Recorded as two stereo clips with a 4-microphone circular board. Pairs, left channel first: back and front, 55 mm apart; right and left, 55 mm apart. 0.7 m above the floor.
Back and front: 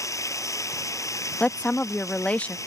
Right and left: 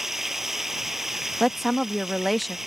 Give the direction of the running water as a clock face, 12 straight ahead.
6 o'clock.